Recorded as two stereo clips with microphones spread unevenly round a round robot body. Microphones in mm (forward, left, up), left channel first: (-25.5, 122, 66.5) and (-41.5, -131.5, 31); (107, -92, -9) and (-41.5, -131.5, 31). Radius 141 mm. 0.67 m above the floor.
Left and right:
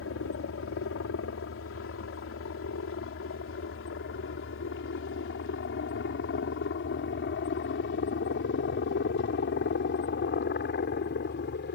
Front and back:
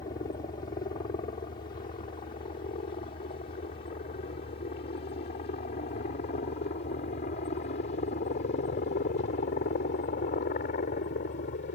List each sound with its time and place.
0.0 s a helicopter: 60° left; by 11.8 s 35° left